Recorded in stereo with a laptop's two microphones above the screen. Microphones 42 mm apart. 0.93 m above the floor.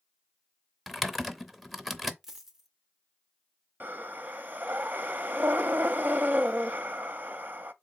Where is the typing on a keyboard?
Centre (ahead or behind), 0.7 m.